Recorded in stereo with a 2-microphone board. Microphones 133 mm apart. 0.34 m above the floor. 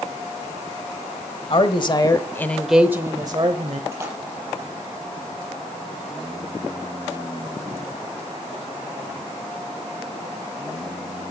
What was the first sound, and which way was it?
A woman speaking, 45° left (ahead or behind).